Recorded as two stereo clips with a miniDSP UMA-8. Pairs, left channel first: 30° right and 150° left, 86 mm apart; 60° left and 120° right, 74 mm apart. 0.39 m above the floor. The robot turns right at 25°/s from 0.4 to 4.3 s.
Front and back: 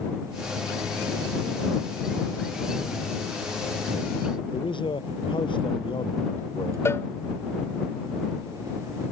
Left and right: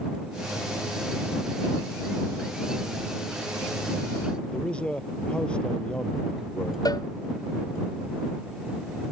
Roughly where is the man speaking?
Ahead.